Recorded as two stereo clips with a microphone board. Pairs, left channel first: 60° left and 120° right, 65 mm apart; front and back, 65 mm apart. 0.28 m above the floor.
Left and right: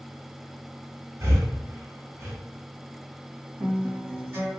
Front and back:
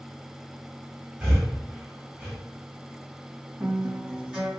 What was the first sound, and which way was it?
Breathing, 110° right.